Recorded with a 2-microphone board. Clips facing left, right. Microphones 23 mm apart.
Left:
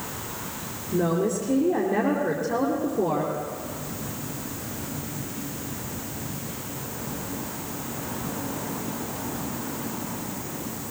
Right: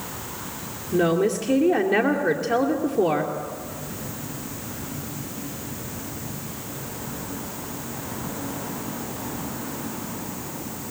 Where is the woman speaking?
50° right (ahead or behind), 2.5 m.